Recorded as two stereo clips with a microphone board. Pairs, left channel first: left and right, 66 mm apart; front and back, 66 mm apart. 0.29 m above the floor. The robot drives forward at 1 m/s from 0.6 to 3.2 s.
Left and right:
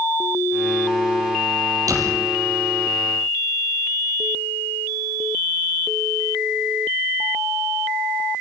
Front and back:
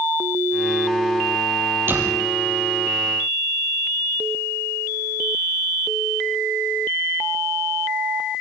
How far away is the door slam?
About 5 m.